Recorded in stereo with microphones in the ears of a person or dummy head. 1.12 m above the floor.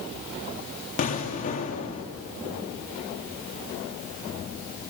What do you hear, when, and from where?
1.0 s an explosion: 45° left (ahead or behind), 1.6 m